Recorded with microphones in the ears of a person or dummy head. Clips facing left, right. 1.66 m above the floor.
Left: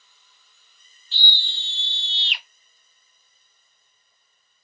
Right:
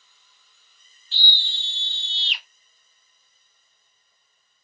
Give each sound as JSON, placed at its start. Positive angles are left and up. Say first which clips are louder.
{"t": 1.1, "sound": "a scream", "louder": "left 1 dB", "side_deg": 80, "distance_m": 1.3}